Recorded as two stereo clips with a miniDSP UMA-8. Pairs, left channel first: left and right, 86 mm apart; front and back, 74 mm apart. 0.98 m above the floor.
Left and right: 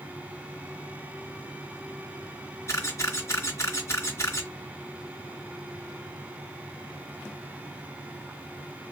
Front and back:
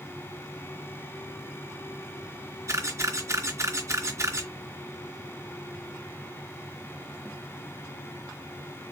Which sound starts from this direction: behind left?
A camera shutter, at 2.7 s.